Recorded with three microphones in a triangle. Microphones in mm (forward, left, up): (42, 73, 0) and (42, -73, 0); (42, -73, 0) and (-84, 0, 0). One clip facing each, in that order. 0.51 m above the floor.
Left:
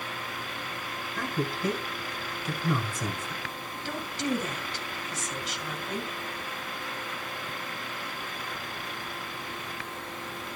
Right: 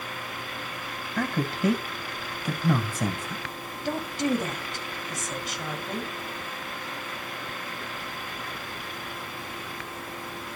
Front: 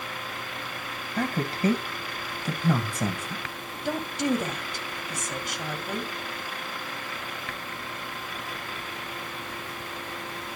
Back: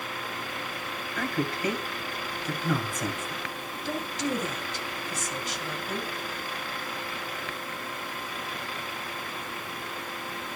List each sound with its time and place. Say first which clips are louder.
1.2 s a man speaking: right 4 dB, front 2 dB; 85° right, 2.5 m
3.9 s a woman speaking: right 5 dB, front 4 dB; 50° right, 2.5 m